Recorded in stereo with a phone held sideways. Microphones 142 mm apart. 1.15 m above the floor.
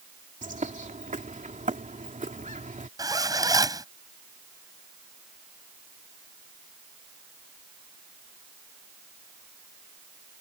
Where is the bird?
65° right (ahead or behind).